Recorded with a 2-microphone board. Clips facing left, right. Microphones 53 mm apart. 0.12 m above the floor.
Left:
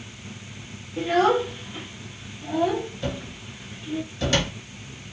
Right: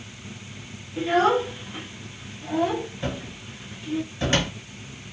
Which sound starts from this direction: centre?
A child speaking, at 1.0 s.